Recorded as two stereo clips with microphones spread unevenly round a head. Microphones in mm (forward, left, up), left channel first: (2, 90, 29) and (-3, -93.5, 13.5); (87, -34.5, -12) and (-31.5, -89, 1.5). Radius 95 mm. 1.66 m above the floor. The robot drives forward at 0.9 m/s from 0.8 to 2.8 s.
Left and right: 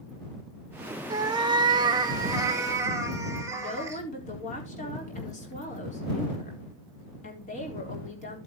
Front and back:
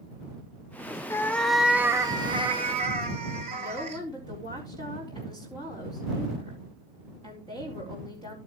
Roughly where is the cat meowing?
Ahead right.